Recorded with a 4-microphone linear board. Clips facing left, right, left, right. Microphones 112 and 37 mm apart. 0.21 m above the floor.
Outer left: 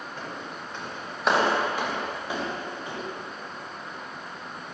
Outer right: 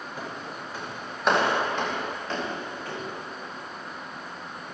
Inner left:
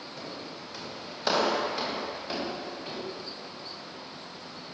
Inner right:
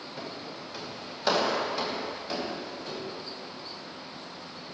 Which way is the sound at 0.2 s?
10° right (ahead or behind).